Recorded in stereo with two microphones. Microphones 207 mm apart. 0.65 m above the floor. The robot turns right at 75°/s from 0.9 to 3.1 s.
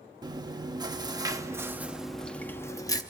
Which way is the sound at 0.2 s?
20° right (ahead or behind).